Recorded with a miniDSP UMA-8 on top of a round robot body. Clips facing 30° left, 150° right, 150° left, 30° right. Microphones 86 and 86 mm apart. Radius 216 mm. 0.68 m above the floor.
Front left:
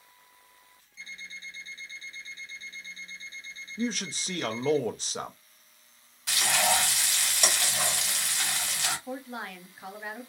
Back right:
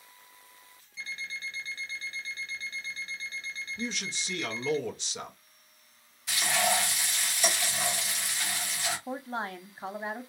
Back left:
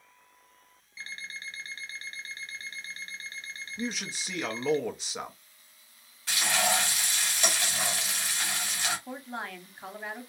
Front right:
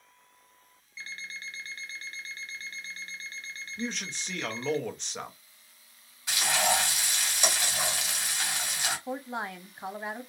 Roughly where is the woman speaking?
Right.